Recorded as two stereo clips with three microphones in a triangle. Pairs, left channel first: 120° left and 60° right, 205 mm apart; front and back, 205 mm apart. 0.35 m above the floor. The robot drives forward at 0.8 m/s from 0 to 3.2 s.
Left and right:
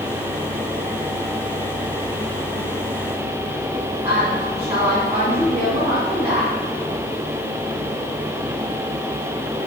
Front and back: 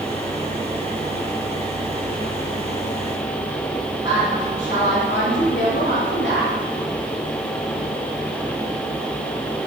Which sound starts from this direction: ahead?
A woman speaking, at 4.0 s.